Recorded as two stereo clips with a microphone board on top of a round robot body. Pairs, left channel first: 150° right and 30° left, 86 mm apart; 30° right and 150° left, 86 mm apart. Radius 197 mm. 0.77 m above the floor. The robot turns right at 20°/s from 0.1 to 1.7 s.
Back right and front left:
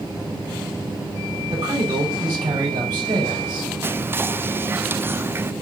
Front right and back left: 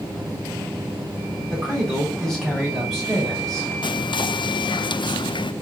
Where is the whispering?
35° right, 0.6 m.